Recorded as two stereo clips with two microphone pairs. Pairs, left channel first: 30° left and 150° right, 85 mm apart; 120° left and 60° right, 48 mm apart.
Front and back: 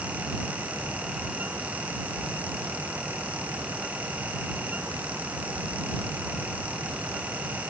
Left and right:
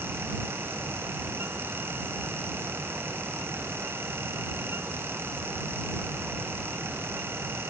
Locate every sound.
Only background noise.